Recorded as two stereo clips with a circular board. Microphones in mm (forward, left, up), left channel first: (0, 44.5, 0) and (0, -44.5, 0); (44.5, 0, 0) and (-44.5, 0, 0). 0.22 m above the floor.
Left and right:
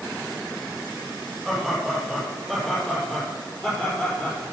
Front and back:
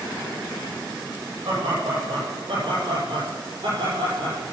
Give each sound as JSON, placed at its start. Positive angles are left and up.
{"t": 1.4, "sound": "laughter", "azimuth_deg": 180, "distance_m": 7.0}